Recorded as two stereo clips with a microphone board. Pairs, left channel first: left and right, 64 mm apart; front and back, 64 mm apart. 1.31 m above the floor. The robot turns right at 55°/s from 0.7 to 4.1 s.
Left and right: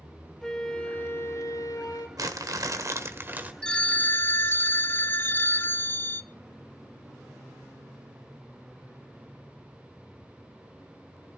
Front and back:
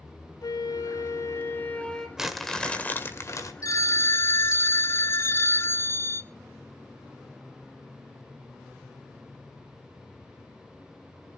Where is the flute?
10° left, 2.5 m; by 2.1 s 85° left, 2.5 m.